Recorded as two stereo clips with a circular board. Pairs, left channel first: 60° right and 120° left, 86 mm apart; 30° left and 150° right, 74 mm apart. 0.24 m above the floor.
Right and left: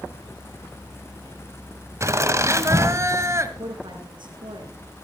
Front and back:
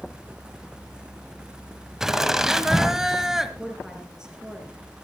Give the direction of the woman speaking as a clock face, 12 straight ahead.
8 o'clock.